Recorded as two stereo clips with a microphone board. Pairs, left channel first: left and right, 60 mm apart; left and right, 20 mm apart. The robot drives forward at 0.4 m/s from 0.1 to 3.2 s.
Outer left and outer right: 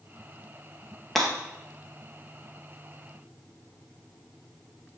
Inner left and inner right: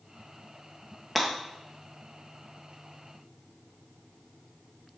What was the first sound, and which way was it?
Breaking glass, 5° left (ahead or behind).